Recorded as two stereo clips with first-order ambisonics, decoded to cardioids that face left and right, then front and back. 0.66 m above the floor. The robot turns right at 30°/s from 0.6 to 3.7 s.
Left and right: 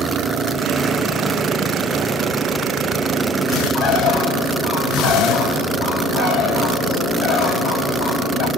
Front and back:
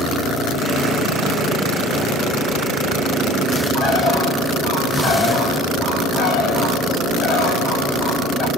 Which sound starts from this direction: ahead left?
A bird, at 3.7 s.